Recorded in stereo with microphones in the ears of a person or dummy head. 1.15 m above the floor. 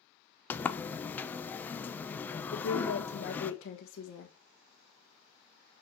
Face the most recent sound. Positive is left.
turn(degrees=70)  # may be behind; listen again after turning